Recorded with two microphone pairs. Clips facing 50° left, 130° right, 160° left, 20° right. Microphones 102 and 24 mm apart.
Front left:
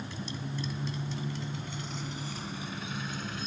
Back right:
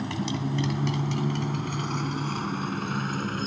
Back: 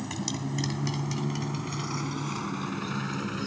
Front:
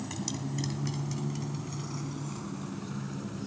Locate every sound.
0.0 s a motorcycle: 125° right; by 3.5 s 165° right